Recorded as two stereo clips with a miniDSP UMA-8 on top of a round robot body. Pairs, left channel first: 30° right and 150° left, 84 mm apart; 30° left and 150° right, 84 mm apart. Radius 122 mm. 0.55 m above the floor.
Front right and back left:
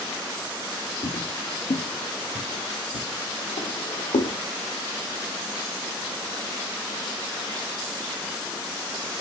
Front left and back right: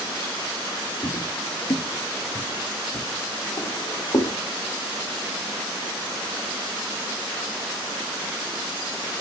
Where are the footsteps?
40° right, 0.7 m; by 4.3 s 30° right, 2.5 m.